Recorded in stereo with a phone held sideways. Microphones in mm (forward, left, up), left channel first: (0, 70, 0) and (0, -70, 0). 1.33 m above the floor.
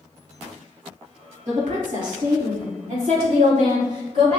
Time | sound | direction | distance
1.5 | a woman speaking | 70° right (ahead or behind) | 1.5 m